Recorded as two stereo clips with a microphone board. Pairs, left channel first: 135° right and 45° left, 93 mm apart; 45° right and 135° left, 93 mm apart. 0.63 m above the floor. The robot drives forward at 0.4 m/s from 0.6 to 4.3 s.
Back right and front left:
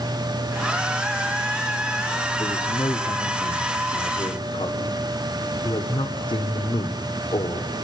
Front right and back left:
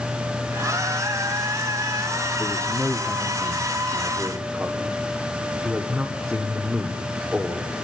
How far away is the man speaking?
About 1.4 m.